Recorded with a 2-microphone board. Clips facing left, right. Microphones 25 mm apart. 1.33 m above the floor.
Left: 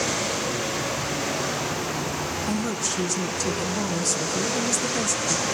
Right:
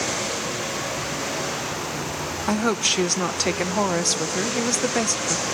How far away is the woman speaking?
About 0.6 m.